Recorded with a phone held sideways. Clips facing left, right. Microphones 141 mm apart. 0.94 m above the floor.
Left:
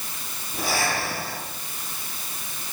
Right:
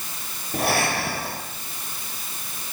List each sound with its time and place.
0.5 s breathing: 65° right (ahead or behind), 10 m